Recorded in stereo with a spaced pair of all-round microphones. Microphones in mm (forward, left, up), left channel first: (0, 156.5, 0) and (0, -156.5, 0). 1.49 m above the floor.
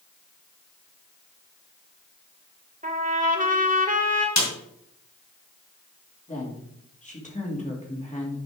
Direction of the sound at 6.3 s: 25° left (ahead or behind).